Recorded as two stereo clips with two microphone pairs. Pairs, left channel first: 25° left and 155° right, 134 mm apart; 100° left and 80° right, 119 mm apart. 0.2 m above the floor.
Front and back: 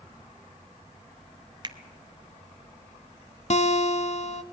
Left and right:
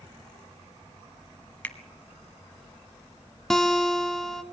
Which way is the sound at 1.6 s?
170° left.